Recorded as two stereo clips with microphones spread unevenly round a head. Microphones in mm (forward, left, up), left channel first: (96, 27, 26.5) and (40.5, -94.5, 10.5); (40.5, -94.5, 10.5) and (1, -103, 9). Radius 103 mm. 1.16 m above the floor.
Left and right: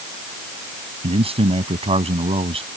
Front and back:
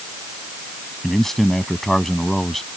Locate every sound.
1.0 s a man speaking: 70° right